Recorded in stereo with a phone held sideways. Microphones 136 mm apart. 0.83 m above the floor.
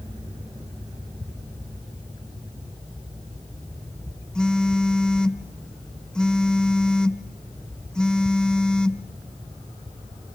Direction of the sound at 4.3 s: 5° left (ahead or behind).